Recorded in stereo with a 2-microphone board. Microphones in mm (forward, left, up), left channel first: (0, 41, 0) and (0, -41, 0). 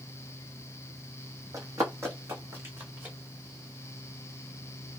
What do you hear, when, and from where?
1.5 s running footsteps: 40° right (ahead or behind), 1.1 m; by 3.1 s 25° right (ahead or behind), 1.7 m